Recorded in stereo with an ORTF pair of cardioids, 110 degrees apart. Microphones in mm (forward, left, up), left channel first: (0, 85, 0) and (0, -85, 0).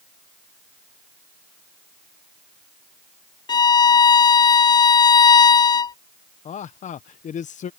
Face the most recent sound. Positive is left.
turn(degrees=50)